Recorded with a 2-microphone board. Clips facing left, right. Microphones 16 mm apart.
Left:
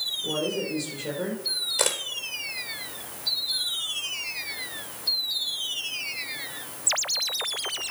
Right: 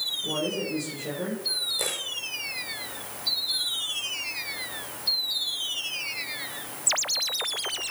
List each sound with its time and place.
0.2 s a woman speaking: 20° left (ahead or behind), 5.5 m; by 1.4 s 25° left (ahead or behind), 4.5 m
1.8 s a camera shutter: 55° left (ahead or behind), 1.4 m